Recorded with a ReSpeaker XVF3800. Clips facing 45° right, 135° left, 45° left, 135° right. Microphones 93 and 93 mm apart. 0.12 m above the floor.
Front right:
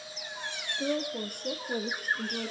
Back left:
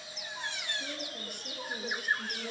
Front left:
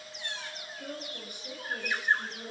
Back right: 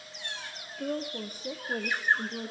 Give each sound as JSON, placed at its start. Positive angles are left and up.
{"t": 0.8, "sound": "a woman speaking", "azimuth_deg": -80, "distance_m": 4.0}